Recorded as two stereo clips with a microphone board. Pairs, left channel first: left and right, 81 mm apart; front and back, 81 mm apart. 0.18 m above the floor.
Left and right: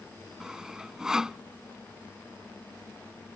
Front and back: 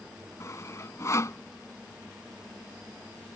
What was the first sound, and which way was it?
Sawing, 15° right.